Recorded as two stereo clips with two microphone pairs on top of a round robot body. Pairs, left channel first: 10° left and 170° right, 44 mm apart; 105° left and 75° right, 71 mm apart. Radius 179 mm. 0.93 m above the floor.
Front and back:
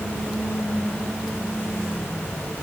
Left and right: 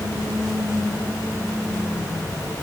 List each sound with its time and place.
Only background noise.